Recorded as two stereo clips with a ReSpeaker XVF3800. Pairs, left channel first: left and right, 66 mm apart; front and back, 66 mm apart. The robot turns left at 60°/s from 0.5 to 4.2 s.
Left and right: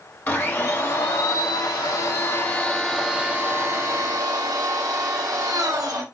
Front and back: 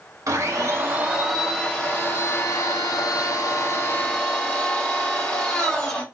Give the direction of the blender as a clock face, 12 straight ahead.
7 o'clock.